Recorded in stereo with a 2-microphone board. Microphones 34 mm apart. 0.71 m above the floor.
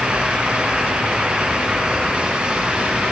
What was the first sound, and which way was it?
Only background noise.